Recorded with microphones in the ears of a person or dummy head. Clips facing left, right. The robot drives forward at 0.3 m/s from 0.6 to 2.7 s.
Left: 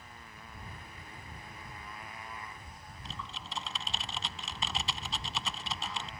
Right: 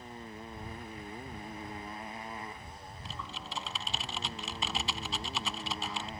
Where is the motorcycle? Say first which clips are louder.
Right 8 dB; 30° right (ahead or behind); by 6.2 s 35° right (ahead or behind).